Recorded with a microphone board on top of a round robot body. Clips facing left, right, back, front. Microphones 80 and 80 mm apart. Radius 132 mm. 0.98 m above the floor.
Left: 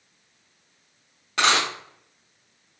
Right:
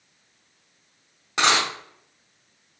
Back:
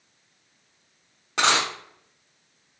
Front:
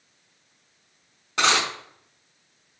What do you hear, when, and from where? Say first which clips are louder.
1.4 s a dropped coin: even, even; 160° right, 0.6 m